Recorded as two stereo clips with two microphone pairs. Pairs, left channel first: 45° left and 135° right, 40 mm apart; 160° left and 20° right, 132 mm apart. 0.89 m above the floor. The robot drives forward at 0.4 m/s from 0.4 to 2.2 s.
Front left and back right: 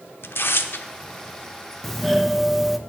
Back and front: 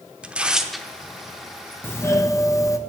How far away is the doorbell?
About 0.8 m.